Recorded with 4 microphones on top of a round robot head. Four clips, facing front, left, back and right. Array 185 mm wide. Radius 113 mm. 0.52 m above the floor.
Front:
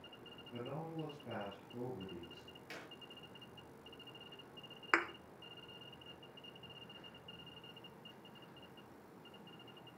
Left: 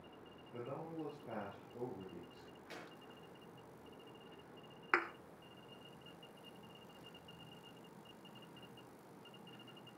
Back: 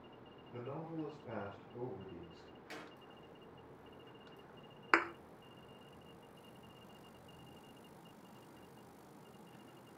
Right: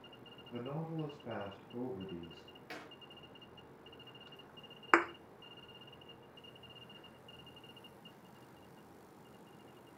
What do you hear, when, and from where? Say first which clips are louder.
0.5 s a man speaking: right 4 dB, back 1 dB; 80° right, 9.5 m
2.7 s a clap: right 4 dB, back 2 dB; 80° right, 8 m
4.9 s a thud: right 8 dB, back 3 dB; 105° right, 0.7 m